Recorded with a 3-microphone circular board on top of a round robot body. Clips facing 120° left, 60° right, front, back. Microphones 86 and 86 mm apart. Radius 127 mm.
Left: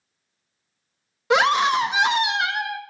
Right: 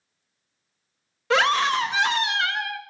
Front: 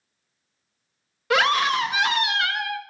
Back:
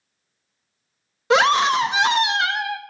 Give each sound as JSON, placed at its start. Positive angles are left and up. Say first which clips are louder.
{"t": 1.3, "sound": "a scream", "louder": "left 3 dB, back 4 dB", "azimuth_deg": 165, "distance_m": 0.6}